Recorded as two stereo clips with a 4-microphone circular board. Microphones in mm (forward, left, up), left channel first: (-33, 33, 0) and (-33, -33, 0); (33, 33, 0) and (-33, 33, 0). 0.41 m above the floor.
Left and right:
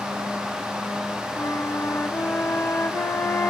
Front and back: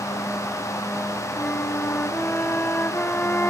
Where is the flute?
55° left, 0.7 m.